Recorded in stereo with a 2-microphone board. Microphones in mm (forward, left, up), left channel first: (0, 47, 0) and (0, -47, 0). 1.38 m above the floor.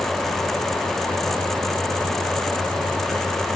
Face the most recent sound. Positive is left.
No sound to turn to.